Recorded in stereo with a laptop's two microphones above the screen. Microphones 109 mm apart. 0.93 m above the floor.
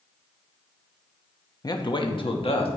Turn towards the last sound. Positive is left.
turn(degrees=60)  # may be behind; listen again after turning